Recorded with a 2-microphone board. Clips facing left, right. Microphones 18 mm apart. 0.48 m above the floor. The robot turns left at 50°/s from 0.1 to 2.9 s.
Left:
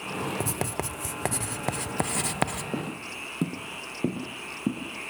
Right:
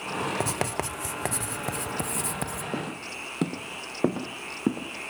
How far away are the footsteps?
About 1.1 m.